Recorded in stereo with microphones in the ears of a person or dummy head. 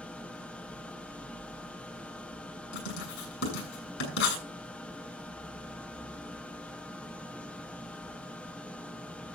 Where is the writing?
70° left (ahead or behind), 7 m.